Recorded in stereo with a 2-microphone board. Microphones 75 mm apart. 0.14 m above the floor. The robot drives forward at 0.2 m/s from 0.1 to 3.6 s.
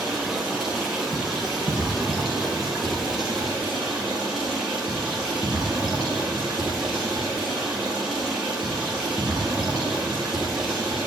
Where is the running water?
10° right (ahead or behind), 3 m; by 11.1 s 5° right (ahead or behind), 4 m.